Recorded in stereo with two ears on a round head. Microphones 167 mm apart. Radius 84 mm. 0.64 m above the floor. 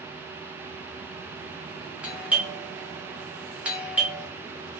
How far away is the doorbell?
About 1.1 m.